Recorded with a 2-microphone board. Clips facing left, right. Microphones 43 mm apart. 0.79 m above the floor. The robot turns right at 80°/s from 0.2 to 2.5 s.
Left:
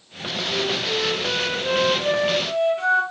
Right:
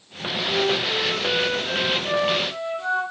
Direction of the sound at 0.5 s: 55° right.